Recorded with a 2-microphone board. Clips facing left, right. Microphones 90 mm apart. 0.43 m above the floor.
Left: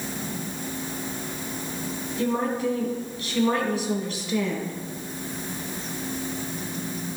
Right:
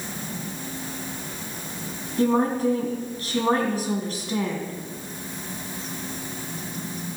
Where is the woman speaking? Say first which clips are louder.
Right 5 dB; 45° right (ahead or behind), 3 m.